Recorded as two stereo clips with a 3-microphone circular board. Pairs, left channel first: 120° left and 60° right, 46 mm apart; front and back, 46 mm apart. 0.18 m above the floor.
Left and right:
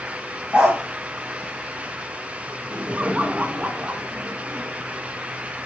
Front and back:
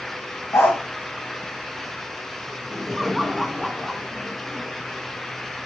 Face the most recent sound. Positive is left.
turn(degrees=-95)